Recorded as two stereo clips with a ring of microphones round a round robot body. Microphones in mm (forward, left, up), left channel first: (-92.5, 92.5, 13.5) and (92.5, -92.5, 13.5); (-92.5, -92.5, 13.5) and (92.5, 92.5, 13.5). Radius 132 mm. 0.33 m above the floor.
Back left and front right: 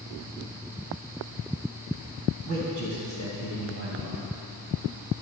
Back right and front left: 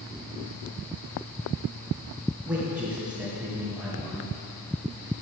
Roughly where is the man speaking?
Ahead right.